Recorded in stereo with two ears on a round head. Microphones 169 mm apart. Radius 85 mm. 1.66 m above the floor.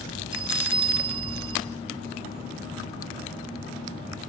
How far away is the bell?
About 5 m.